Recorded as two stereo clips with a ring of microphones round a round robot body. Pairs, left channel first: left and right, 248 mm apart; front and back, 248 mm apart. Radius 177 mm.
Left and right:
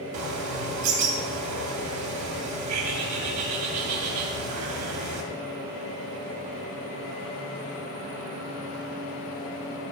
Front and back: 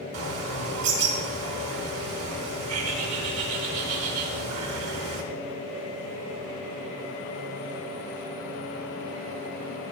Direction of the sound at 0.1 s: 130° right.